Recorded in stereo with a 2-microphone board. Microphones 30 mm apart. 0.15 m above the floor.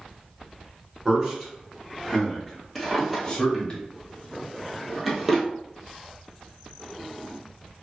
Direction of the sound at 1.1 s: 25° right (ahead or behind).